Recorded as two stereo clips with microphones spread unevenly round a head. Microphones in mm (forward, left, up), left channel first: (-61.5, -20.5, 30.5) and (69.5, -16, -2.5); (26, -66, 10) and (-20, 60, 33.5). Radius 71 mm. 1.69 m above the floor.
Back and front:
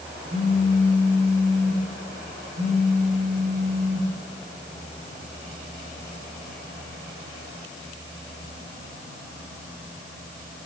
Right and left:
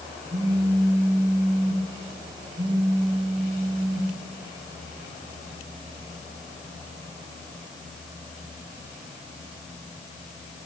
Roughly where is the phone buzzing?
Ahead left.